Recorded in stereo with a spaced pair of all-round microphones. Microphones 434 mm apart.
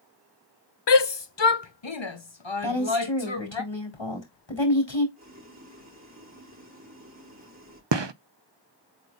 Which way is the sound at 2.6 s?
85° left.